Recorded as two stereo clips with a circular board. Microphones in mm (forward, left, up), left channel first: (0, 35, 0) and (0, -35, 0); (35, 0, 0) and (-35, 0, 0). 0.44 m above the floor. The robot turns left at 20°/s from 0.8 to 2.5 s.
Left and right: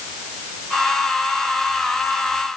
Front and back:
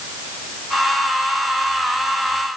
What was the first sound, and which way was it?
Only background noise.